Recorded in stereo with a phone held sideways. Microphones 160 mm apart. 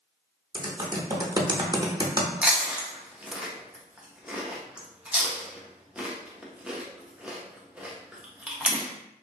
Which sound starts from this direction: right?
Typing on a keyboard, at 0.5 s.